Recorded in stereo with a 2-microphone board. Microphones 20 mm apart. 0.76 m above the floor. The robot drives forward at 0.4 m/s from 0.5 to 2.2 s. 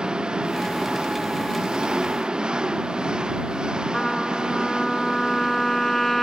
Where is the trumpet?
15° left (ahead or behind).